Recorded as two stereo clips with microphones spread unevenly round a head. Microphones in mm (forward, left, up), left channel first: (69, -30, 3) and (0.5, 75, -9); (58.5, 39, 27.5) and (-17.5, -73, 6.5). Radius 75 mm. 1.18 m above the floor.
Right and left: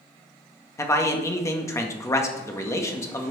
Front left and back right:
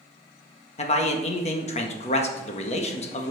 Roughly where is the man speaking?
Ahead.